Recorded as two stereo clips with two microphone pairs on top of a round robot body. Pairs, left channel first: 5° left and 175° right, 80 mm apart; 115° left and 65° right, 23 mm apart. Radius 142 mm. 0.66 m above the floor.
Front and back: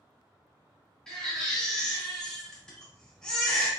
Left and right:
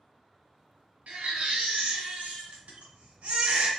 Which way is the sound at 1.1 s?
80° right.